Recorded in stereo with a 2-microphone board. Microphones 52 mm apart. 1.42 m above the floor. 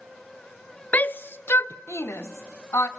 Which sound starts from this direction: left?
A shout, at 0.9 s.